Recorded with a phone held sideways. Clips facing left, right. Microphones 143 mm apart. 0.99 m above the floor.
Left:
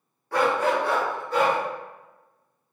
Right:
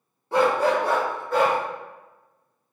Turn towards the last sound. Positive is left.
turn(degrees=-60)  # may be behind; listen again after turning